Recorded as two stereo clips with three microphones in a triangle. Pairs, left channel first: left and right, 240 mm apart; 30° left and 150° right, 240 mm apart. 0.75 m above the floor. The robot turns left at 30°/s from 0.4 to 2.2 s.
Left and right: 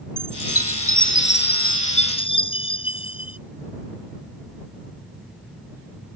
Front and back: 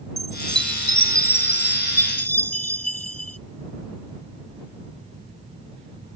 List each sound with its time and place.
0.2 s a chime: 75° left; by 3.4 s 20° left